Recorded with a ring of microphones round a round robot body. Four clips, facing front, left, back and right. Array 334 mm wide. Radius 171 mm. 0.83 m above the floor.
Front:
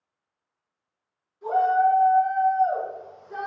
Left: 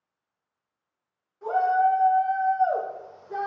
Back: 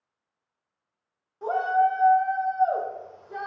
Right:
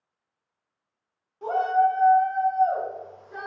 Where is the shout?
165° right, 0.8 m; by 3.5 s 80° left, 0.6 m.